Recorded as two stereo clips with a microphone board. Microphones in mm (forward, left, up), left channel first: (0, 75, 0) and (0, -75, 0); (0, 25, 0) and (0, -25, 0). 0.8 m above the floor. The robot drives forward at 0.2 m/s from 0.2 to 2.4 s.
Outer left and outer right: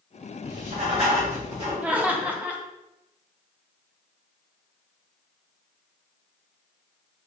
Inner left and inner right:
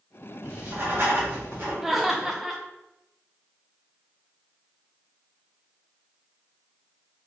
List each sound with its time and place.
0.4 s writing: 45° right (ahead or behind), 1.5 m; by 1.7 s 40° right (ahead or behind), 1.6 m
1.8 s laughter: 10° right (ahead or behind), 0.6 m